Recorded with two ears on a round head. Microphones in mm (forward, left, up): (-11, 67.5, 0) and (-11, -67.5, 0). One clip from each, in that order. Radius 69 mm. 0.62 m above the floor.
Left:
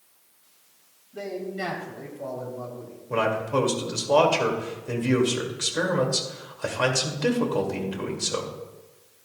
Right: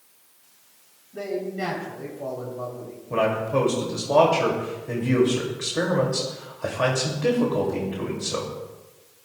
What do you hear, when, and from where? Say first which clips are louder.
1.1 s a man speaking: right 3 dB; 35° left (ahead or behind), 3 m; by 3.0 s 15° left (ahead or behind), 2.5 m
3.1 s a man speaking: right 1 dB; 70° left (ahead or behind), 2 m